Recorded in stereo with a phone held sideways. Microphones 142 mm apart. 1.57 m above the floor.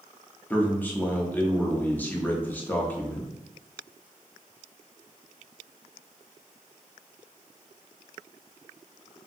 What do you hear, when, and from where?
0.5 s a man speaking: 10° left (ahead or behind), 0.7 m